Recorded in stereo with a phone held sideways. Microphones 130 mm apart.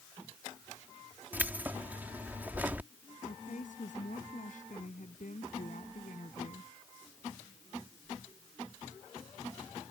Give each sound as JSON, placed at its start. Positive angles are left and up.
{"t": 1.3, "sound": "keys jangling", "side_deg": -15}
{"t": 3.2, "sound": "a woman speaking", "side_deg": 70}